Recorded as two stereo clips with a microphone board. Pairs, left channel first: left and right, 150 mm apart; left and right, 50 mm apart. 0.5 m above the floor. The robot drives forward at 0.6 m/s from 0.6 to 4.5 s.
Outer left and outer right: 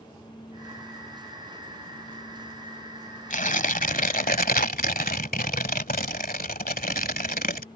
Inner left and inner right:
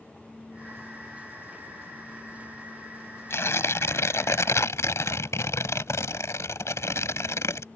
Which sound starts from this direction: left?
Tearing paper, at 3.3 s.